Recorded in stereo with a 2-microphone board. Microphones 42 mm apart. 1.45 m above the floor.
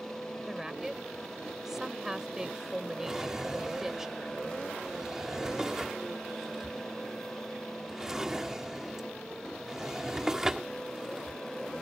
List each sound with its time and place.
0.5 s a woman speaking: 10° right (ahead or behind)
3.1 s a drawer: 15° right (ahead or behind)